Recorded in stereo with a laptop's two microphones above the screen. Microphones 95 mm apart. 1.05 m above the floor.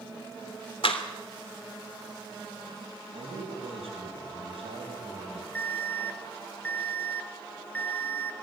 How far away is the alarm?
About 0.9 m.